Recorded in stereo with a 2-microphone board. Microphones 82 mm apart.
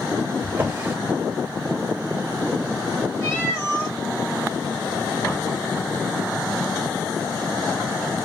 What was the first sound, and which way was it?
A drawer, 25° right (ahead or behind).